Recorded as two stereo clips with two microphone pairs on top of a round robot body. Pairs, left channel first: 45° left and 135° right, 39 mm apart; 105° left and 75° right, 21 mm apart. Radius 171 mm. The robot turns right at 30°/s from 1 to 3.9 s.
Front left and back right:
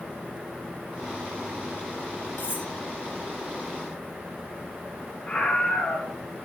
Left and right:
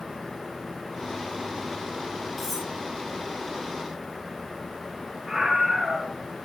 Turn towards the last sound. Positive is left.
turn(degrees=-10)